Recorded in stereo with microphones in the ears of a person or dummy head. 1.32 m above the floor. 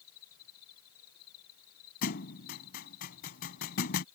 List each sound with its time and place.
0.0 s an insect: 85° left
2.0 s a thud: 60° left (ahead or behind)